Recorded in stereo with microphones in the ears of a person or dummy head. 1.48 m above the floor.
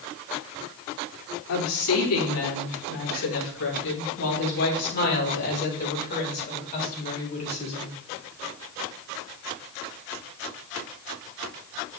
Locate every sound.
1.5 s a woman speaking: 85° left, 4.5 m; by 7.9 s 35° left (ahead or behind), 7.5 m